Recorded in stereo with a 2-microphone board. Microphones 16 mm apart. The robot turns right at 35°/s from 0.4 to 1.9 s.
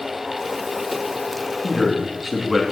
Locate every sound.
1.6 s a man speaking: 5° left (ahead or behind), 3 m; by 2.6 s 5° right (ahead or behind), 3 m